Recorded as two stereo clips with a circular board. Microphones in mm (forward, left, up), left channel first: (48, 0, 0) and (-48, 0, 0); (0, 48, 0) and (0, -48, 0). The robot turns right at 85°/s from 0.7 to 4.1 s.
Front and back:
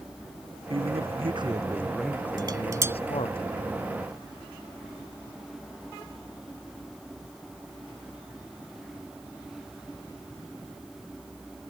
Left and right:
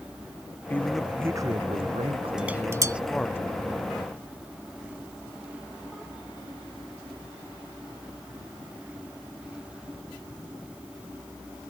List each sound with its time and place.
0.7 s a man speaking: 155° left; by 3.4 s 25° left
2.4 s dishes clattering: 170° right; by 3.0 s 120° right